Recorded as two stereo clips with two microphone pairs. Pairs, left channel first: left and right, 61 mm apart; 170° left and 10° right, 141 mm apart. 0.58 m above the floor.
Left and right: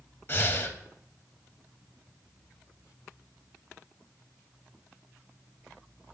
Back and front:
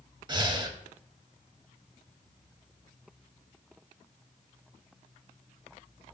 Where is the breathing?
40° left, 0.7 m.